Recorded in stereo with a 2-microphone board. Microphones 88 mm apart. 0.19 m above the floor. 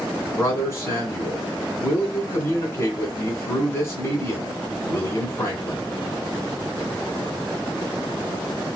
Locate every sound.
0.4 s a man speaking: 30° left (ahead or behind), 1.7 m